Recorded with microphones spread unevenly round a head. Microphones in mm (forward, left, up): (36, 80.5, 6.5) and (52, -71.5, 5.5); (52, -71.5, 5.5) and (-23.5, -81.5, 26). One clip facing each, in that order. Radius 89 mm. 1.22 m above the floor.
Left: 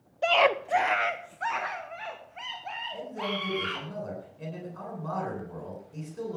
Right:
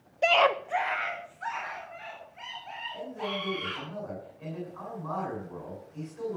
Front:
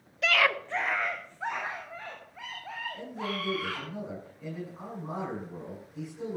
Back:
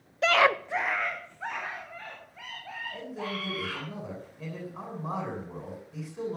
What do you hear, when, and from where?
0.2 s a scream: 130° right, 0.6 m; by 3.9 s 80° left, 4.5 m
2.9 s a man speaking: 150° left, 10 m